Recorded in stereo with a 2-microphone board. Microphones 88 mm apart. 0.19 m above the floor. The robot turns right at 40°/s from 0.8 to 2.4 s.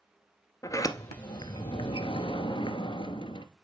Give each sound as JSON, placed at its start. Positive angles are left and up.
{"t": 0.6, "sound": "a sliding door", "azimuth_deg": 40, "distance_m": 0.6}